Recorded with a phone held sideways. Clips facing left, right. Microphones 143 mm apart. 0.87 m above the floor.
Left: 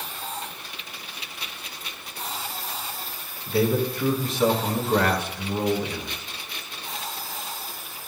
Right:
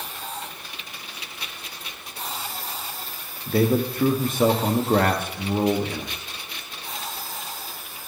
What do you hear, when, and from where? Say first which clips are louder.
3.5 s a man speaking: right 2 dB; 50° right (ahead or behind), 1.1 m